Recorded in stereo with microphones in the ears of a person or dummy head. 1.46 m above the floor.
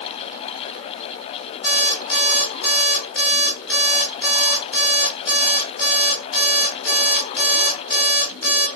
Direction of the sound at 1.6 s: 10° left (ahead or behind).